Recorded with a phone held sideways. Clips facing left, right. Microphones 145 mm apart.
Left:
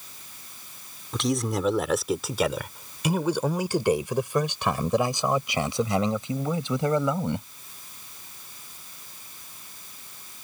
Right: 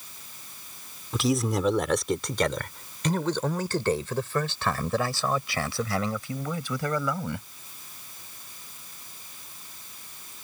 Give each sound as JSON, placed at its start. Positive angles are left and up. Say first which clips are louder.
{"t": 1.1, "sound": "a man speaking", "louder": "right 1 dB", "side_deg": -5}